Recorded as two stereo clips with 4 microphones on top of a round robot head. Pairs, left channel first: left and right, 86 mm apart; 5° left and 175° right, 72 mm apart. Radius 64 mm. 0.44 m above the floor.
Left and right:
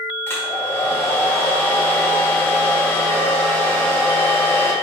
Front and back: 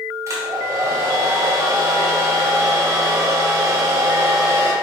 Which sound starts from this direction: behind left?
A hair dryer, at 0.3 s.